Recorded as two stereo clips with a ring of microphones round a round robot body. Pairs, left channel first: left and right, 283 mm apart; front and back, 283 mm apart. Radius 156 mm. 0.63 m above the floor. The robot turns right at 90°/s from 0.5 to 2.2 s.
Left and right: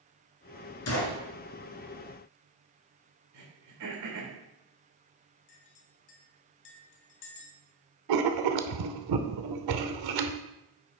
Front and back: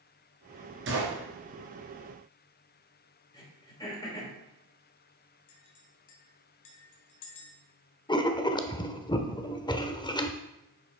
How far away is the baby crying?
I don't hear a baby crying.